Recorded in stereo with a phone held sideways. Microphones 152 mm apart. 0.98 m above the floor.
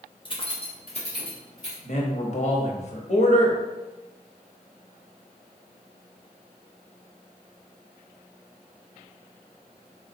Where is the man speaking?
50° left (ahead or behind), 1.0 m.